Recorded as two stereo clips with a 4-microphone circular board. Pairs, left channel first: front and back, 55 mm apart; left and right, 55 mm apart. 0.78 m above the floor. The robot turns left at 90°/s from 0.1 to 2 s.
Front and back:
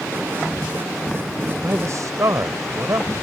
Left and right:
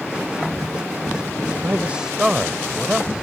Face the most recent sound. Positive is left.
turn(degrees=-165)